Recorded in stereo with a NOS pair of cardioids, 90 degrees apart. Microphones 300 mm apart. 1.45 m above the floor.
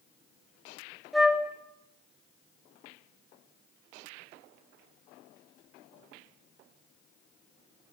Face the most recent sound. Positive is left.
turn(degrees=0)